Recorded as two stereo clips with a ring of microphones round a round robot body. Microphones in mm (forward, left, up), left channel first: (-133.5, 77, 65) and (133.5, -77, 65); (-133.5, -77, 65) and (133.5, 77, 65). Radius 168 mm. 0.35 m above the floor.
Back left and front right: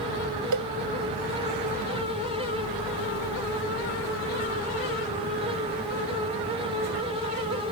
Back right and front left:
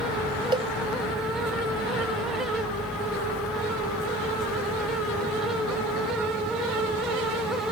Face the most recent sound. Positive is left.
turn(degrees=-45)